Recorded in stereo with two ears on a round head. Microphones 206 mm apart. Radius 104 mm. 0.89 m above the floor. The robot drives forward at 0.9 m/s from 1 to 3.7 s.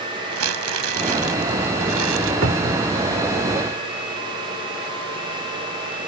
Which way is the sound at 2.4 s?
55° right (ahead or behind).